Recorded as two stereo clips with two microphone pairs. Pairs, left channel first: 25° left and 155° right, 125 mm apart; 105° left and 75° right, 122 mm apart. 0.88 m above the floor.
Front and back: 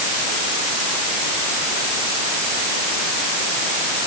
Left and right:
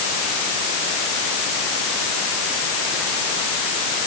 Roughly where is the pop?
I don't hear a pop.